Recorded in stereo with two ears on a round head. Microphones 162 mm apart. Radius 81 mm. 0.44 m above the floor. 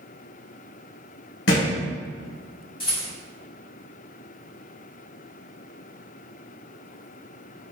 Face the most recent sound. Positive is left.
turn(degrees=30)  # may be behind; listen again after turning